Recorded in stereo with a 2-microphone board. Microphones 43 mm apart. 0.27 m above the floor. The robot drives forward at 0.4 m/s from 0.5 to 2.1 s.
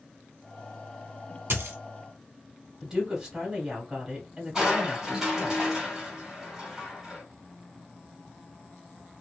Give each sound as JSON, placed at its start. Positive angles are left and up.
{"t": 1.5, "sound": "a dropped coin", "side_deg": -70, "distance_m": 0.7}
{"t": 2.8, "sound": "a woman speaking", "side_deg": -10, "distance_m": 1.5}
{"t": 4.5, "sound": "crushing", "side_deg": -10, "distance_m": 1.9}